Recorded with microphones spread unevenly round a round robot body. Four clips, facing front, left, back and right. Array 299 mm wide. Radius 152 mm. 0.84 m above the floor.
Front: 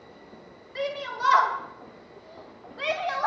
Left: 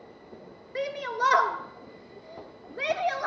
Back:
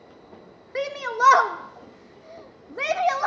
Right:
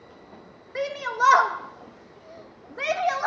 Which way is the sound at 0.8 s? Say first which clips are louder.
Right 4 dB, back 6 dB; straight behind.